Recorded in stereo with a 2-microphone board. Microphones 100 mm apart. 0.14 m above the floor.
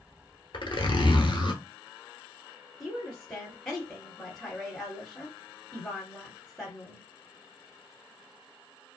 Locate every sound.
0.5 s a zipper: 55° left (ahead or behind), 0.9 m
2.8 s a woman speaking: 15° left (ahead or behind), 1.6 m